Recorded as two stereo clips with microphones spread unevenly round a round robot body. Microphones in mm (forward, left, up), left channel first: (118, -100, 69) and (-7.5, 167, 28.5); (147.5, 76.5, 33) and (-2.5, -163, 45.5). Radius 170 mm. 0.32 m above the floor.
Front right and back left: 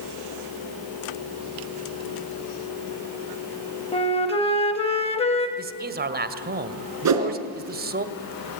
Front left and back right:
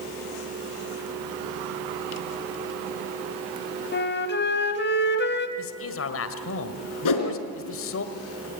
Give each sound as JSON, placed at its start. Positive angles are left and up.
{"t": 3.9, "sound": "a flute", "azimuth_deg": 10, "distance_m": 2.0}
{"t": 5.6, "sound": "a man speaking", "azimuth_deg": 75, "distance_m": 1.7}
{"t": 7.0, "sound": "a whoosh", "azimuth_deg": 85, "distance_m": 3.0}